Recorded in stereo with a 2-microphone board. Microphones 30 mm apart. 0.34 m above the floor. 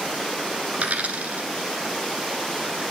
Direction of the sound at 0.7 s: 60° right (ahead or behind).